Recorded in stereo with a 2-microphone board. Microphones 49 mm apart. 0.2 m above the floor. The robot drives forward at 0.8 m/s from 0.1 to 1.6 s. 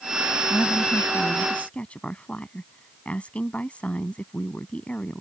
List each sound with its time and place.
0.5 s a woman speaking: 30° left (ahead or behind); by 5.2 s 25° left (ahead or behind)